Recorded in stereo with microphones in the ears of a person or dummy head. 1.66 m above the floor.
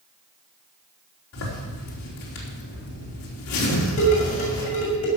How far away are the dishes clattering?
About 6 m.